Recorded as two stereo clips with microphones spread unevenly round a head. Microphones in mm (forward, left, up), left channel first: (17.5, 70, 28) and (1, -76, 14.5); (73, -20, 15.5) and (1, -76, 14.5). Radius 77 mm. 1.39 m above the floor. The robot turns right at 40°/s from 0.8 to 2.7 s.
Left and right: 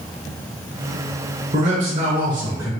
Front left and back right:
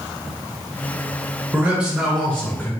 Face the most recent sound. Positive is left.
turn(degrees=-25)